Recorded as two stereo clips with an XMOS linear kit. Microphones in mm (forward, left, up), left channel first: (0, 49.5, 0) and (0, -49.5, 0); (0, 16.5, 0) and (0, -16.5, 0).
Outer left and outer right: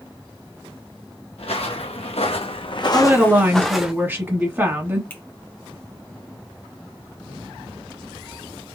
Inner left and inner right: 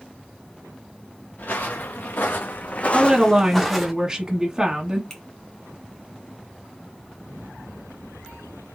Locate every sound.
1.4 s footsteps: 80° left, 1.0 m; by 3.9 s 10° right (ahead or behind), 0.7 m
2.9 s a woman speaking: 20° right (ahead or behind), 1.0 m
5.1 s a finger snap: 20° left (ahead or behind), 1.4 m